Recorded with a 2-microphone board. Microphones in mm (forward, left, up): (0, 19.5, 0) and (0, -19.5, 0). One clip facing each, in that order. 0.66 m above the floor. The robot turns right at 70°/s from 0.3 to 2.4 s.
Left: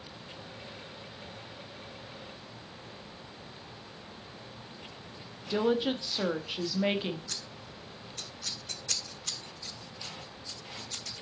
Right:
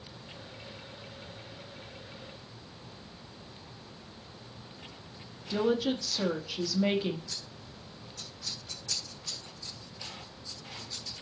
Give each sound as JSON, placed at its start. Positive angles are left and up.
{"t": 5.5, "sound": "a woman speaking", "side_deg": 20, "distance_m": 0.9}
{"t": 7.3, "sound": "scissors", "side_deg": 65, "distance_m": 1.0}